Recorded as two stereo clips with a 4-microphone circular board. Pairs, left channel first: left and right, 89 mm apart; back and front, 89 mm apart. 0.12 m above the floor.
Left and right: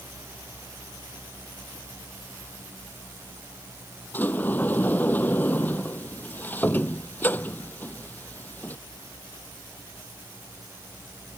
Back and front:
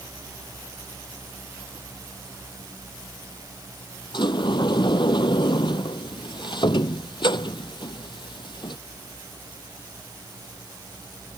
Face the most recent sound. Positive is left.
turn(degrees=160)